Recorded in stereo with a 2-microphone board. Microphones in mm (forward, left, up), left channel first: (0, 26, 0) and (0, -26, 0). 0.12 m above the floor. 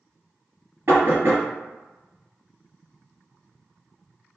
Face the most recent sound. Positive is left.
turn(degrees=-45)  # may be behind; listen again after turning